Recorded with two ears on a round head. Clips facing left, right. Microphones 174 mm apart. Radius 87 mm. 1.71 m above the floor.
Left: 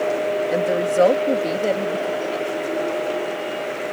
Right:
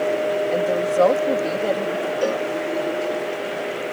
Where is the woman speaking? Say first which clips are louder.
Left 2 dB; 15° left (ahead or behind).